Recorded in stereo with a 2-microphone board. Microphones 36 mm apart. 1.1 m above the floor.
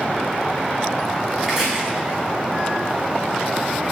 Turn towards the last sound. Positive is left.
turn(degrees=-15)  # may be behind; listen again after turning